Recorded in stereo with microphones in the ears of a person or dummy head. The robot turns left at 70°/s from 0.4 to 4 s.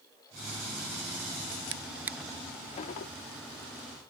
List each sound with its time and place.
1.7 s a drawer: 25° right (ahead or behind); by 3.1 s 50° left (ahead or behind)